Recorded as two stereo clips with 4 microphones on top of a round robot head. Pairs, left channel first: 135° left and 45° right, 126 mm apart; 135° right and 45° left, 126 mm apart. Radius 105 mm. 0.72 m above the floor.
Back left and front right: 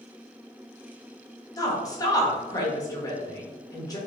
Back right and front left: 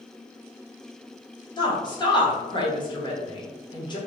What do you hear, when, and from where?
1.6 s a woman speaking: 175° right, 1.2 m